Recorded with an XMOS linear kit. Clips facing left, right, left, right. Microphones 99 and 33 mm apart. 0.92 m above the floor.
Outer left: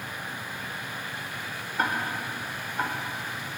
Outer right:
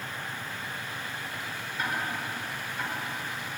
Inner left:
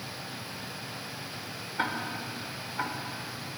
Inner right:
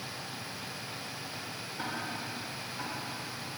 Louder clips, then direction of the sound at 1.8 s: Outer left 4 dB, inner left 6 dB; 50° left (ahead or behind).